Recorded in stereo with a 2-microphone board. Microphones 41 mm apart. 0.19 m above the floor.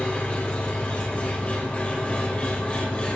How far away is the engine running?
About 3 m.